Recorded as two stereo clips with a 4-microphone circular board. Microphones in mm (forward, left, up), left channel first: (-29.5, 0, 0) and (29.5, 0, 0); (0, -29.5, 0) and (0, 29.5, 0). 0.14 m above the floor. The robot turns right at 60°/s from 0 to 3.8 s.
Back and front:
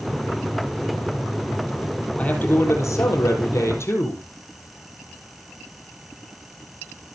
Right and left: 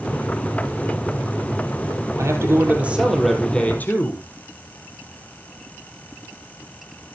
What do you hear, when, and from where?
2.2 s a man speaking: 115° left, 4 m; by 4.2 s 150° right, 4 m